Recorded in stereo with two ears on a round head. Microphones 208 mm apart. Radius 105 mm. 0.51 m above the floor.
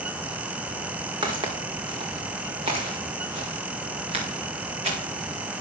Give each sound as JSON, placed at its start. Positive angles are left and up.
{"t": 1.2, "sound": "footsteps", "side_deg": -20, "distance_m": 1.9}